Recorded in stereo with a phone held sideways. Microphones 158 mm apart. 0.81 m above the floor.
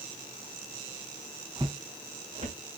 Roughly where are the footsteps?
Right.